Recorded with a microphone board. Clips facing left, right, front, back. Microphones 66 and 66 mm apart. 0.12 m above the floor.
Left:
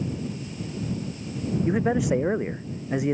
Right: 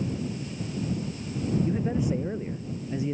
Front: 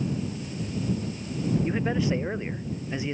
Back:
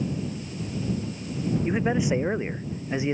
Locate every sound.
1.6 s a man speaking: 105° left; by 3.1 s 110° left